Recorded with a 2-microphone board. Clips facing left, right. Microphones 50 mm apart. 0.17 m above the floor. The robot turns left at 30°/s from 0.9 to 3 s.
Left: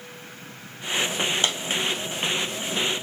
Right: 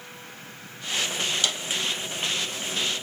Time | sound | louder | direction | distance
1.4 | a dropped coin | left 3 dB | 35° left (ahead or behind) | 2.5 m